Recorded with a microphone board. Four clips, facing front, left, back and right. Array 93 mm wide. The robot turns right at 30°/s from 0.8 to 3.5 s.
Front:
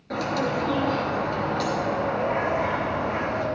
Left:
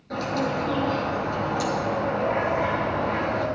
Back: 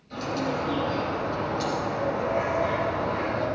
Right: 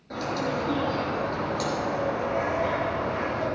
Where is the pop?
No pop in this recording.